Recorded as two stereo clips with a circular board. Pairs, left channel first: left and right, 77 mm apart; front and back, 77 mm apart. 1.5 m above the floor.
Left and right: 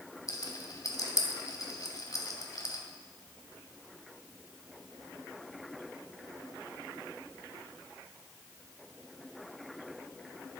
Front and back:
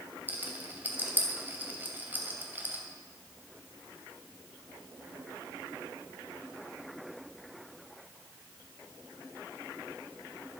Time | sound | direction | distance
0.3 | a rattle | 115° left | 2 m